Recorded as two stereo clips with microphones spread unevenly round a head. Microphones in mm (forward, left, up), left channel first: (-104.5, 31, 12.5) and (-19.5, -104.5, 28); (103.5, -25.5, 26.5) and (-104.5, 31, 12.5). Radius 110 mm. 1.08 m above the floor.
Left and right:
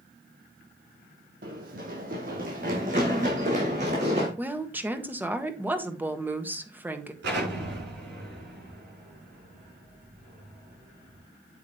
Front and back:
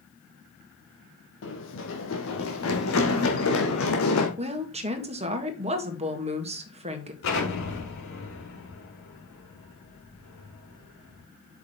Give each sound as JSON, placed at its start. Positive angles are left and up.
{"t": 1.4, "sound": "running footsteps", "azimuth_deg": -35, "distance_m": 2.0}
{"t": 4.4, "sound": "a woman speaking", "azimuth_deg": -140, "distance_m": 1.6}
{"t": 7.2, "sound": "an explosion", "azimuth_deg": -40, "distance_m": 6.5}